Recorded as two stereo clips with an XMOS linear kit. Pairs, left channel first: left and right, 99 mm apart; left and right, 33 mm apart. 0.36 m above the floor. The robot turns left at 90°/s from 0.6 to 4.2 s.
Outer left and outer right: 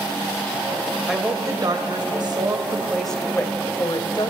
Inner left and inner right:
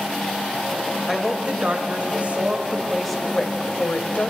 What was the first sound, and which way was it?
A woman speaking, 5° right.